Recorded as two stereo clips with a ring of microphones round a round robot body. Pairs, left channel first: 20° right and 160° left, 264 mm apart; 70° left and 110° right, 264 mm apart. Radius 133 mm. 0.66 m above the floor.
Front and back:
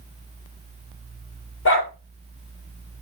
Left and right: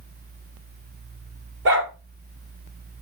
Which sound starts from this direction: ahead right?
A dog barking, at 1.6 s.